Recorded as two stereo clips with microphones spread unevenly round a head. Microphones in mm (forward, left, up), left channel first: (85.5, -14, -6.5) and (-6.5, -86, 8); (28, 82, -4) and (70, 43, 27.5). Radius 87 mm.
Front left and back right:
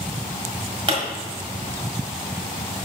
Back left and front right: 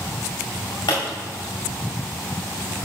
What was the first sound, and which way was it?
A pop, 160° right.